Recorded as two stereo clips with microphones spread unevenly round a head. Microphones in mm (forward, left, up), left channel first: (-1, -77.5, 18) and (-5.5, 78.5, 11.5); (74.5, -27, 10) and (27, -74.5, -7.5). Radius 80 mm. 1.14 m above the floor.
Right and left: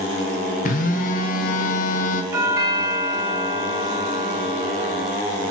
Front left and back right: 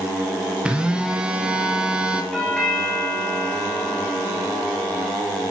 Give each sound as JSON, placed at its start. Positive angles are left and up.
{"t": 0.7, "sound": "a phone buzzing", "azimuth_deg": -75, "distance_m": 0.7}
{"t": 2.3, "sound": "a doorbell", "azimuth_deg": 145, "distance_m": 1.2}